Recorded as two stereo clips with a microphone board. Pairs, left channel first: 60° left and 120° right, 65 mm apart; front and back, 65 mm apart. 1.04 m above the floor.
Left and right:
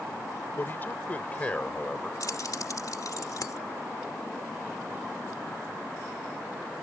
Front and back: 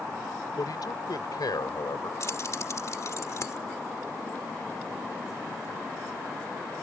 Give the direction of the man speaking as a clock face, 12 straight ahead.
12 o'clock.